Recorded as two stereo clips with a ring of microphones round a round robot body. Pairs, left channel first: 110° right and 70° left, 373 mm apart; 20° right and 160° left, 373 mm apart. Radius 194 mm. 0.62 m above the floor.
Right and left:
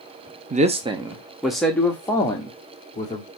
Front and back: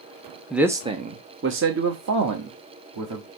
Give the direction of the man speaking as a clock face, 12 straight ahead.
10 o'clock.